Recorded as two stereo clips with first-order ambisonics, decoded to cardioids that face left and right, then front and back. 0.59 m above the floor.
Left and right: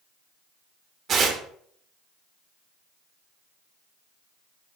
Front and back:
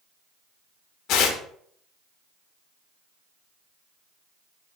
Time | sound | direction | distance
1.1 | tearing paper | 30° right | 1.1 m